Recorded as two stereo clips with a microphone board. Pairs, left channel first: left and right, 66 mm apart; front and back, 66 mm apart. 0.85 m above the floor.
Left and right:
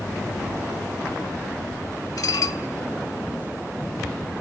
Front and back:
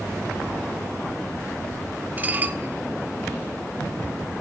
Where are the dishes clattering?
115° left, 1.4 m.